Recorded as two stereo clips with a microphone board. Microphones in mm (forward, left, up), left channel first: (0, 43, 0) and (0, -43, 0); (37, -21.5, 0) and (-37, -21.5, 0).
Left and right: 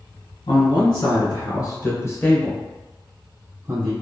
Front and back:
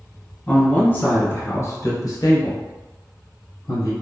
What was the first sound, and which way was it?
A man speaking, 75° left.